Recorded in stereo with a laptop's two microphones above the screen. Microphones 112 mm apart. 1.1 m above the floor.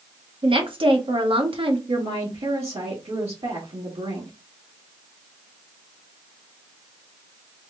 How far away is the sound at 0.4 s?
About 1.1 m.